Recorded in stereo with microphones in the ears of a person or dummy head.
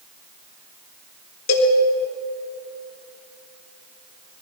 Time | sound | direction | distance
1.5 | a cowbell | 55° left (ahead or behind) | 4 m